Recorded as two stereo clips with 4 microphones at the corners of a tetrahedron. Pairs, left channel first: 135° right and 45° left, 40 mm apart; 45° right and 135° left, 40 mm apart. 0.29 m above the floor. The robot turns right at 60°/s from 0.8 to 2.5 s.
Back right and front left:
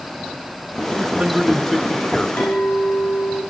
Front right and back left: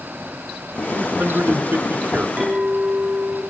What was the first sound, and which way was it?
A man speaking, 105° left.